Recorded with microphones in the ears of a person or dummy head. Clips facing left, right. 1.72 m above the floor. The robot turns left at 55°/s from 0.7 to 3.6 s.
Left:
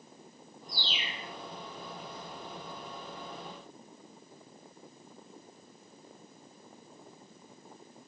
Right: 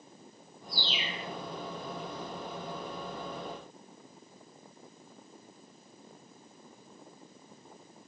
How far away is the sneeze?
I don't hear a sneeze.